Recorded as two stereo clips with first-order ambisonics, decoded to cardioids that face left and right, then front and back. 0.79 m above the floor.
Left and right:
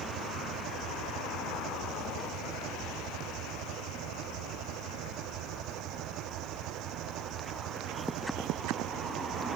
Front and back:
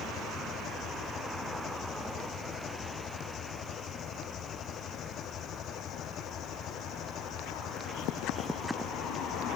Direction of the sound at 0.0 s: 55° right.